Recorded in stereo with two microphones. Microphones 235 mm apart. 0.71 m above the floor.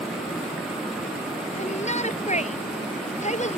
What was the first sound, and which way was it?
A shout, 25° left (ahead or behind).